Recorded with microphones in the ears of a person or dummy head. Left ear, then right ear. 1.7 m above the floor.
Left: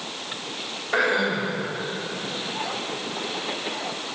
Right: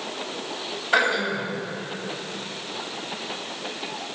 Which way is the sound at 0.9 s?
40° right (ahead or behind).